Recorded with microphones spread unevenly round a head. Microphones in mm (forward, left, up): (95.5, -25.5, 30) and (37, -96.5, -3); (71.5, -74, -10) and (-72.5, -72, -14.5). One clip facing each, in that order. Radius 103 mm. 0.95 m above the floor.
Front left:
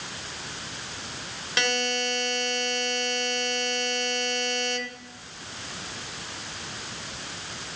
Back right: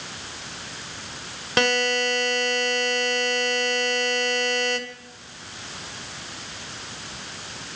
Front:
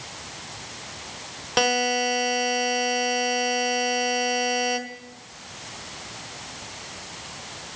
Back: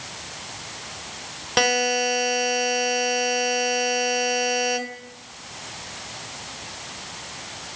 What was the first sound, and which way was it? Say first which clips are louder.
A buzzer: back right 6 dB, back 1 dB; 90° right.